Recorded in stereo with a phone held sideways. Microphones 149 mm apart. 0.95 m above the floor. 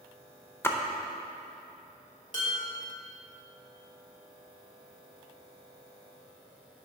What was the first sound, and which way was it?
A splash, 15° left (ahead or behind).